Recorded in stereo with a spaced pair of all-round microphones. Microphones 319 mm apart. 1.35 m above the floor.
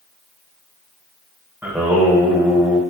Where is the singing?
5° right (ahead or behind), 1.2 m.